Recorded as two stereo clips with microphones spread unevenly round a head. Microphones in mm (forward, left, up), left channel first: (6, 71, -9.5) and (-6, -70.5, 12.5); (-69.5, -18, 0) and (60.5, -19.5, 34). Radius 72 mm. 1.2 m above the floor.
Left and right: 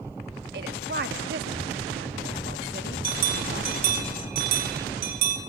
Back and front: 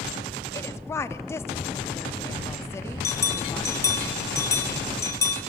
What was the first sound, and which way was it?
A woman speaking, 115° right.